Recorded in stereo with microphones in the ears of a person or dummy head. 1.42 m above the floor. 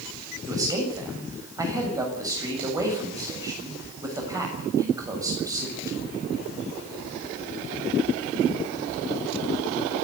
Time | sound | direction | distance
0.5 | a man speaking | 20° right (ahead or behind) | 7 m